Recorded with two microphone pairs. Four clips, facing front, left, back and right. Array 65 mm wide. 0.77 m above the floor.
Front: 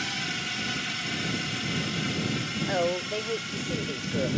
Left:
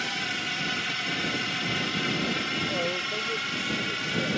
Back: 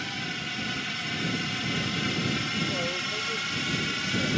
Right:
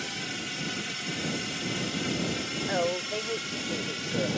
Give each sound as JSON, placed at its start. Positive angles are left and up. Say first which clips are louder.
{"t": 0.0, "sound": "a drone", "louder": "left 5 dB, front 1 dB", "azimuth_deg": 80}
{"t": 2.7, "sound": "a woman speaking", "louder": "right 1 dB, front 4 dB", "azimuth_deg": -45}